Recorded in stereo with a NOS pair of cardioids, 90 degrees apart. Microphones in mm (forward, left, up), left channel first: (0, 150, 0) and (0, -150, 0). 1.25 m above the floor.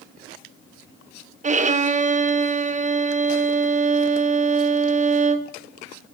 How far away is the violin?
About 0.8 m.